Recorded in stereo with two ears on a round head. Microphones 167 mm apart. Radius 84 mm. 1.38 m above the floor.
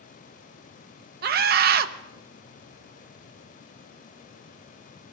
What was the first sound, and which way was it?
A scream, 55° right (ahead or behind).